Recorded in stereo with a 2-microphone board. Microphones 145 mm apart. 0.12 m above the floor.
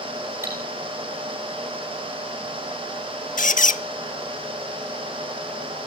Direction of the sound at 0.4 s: 15° right (ahead or behind).